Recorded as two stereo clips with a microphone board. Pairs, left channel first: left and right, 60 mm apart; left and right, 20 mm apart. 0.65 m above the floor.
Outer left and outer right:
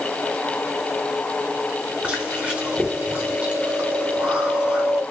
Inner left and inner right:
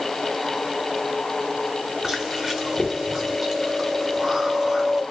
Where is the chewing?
20° right (ahead or behind), 1.2 m.